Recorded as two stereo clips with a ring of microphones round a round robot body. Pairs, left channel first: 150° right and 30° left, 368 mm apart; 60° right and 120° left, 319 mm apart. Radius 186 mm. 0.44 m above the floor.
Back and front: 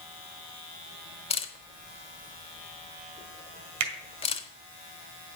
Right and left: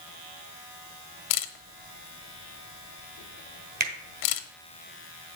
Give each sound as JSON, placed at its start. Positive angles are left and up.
{"t": 1.3, "sound": "a camera shutter", "azimuth_deg": -75, "distance_m": 0.7}
{"t": 3.8, "sound": "a finger snap", "azimuth_deg": 60, "distance_m": 1.8}